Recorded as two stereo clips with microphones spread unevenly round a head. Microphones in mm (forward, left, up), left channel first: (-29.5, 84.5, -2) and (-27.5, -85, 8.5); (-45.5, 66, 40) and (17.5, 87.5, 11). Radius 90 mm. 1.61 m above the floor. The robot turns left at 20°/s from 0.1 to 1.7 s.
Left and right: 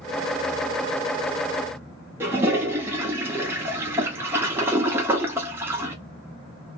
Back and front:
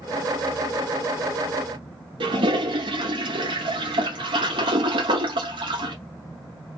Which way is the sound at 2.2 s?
10° right.